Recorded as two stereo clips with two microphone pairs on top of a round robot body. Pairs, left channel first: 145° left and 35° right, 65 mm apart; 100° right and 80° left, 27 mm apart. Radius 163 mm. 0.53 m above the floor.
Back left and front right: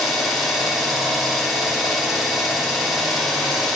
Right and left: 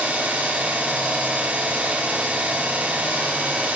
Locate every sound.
0.0 s an engine running: 50° left, 5 m